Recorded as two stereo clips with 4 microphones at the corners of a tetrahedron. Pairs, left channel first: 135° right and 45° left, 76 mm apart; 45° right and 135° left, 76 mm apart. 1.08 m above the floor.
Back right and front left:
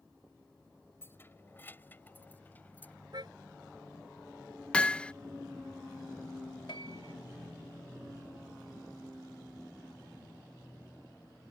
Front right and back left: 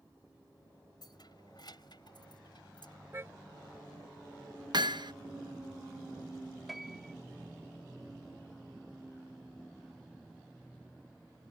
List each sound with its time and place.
1.0 s keys jangling: 75° right; by 2.9 s 65° right
3.1 s a car horn: 75° left
4.7 s hammering: 150° left
6.7 s a piano: 135° right